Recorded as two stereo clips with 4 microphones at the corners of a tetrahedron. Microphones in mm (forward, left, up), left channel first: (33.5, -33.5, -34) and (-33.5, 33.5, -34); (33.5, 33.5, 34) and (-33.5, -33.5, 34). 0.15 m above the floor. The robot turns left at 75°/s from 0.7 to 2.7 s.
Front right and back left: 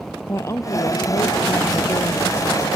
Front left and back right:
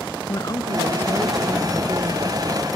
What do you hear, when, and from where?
0.3 s a woman speaking: 5° left; by 2.7 s 140° right